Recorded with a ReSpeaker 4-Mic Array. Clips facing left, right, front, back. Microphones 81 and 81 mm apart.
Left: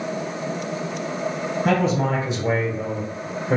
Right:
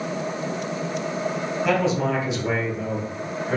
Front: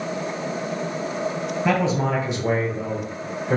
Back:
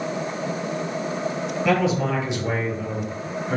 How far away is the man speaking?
About 2 m.